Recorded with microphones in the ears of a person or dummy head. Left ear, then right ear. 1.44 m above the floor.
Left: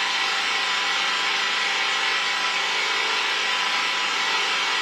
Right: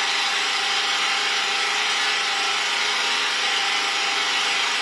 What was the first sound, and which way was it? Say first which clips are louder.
An engine running: right 1 dB; centre (ahead or behind).